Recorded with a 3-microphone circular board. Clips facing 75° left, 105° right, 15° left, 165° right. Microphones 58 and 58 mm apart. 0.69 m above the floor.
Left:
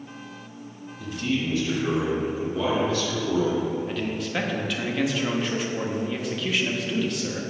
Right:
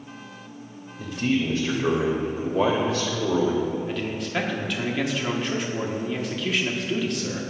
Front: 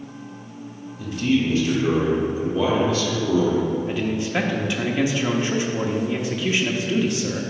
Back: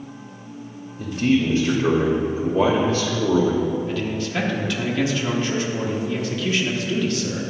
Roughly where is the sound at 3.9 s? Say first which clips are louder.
Even, front 1 dB; ahead.